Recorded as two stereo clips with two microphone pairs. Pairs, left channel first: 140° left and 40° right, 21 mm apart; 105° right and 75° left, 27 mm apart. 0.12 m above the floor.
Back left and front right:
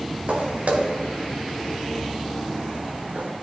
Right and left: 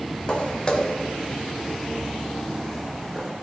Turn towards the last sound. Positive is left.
turn(degrees=-15)